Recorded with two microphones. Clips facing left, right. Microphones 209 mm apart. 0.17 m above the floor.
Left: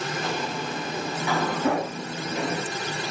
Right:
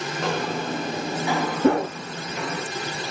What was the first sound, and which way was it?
Footsteps, 70° right (ahead or behind).